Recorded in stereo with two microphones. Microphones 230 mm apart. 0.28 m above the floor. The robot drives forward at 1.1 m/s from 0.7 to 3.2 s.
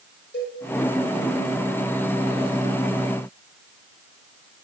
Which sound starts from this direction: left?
A cowbell, at 0.3 s.